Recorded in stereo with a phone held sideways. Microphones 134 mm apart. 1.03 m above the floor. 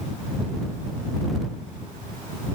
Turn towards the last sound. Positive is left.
No sound to turn to.